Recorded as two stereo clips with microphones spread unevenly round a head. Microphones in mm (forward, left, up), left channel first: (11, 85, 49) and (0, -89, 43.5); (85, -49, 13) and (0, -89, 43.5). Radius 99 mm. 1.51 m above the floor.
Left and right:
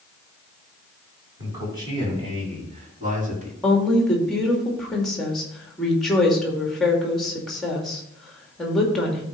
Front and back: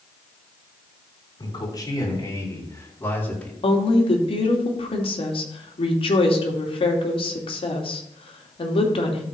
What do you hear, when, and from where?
1.4 s a man speaking: 20° right, 5.5 m; by 3.5 s 50° right, 3 m
3.6 s a woman speaking: straight ahead, 2.5 m